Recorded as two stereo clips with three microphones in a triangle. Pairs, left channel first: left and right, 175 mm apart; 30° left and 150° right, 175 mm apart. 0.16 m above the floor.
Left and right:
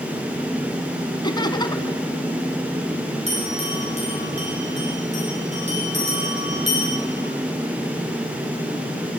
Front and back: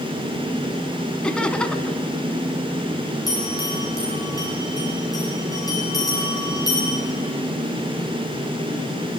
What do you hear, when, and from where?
1.2 s laughter: 110° left, 1.5 m
3.3 s a bell: 40° right, 8 m